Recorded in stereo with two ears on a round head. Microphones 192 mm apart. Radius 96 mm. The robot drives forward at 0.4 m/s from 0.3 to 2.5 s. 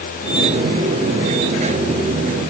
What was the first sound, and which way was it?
Only background noise.